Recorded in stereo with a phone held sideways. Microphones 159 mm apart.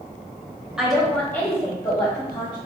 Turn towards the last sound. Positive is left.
turn(degrees=30)  # may be behind; listen again after turning